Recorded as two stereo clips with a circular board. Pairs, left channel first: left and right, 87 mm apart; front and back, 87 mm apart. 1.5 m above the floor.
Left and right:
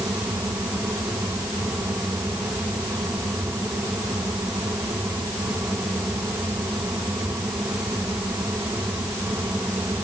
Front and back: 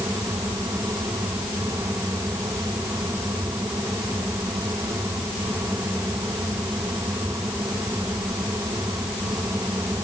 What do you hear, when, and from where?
Only background noise.